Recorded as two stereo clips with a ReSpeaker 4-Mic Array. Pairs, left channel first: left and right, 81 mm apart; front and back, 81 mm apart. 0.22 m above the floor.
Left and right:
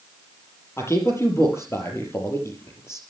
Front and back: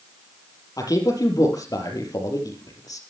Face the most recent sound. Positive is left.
turn(degrees=35)